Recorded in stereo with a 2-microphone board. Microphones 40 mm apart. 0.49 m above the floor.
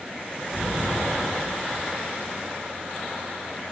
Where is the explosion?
50° right (ahead or behind), 2 m.